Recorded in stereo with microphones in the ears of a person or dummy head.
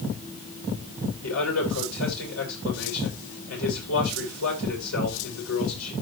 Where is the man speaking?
90° left, 6.5 m.